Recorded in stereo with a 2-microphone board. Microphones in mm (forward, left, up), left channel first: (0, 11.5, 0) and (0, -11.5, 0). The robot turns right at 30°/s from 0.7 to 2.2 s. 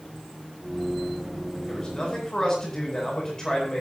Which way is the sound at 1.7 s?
40° left (ahead or behind).